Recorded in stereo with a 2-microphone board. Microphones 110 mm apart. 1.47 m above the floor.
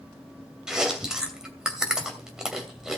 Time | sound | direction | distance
0.7 | chewing | 5° right (ahead or behind) | 2.5 m